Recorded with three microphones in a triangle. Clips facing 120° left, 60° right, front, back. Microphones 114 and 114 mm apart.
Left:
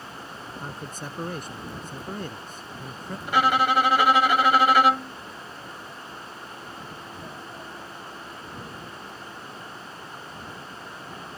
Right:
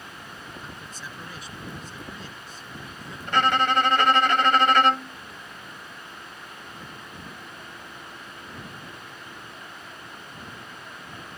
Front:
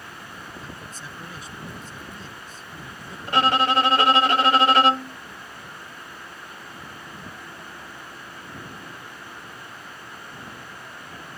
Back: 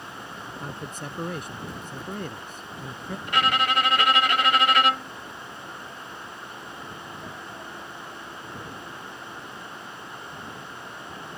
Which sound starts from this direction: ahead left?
A violin, at 3.3 s.